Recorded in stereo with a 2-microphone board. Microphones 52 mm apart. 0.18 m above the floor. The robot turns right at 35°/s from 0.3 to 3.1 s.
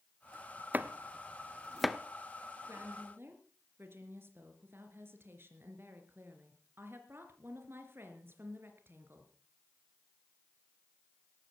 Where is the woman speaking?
60° right (ahead or behind), 3.5 m; by 9.3 s 50° right (ahead or behind), 3.5 m.